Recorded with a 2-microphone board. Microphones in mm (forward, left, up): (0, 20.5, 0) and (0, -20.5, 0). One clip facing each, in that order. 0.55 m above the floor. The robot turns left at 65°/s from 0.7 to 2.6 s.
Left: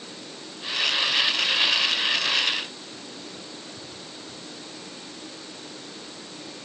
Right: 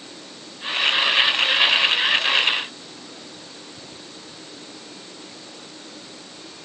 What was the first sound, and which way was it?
Only background noise.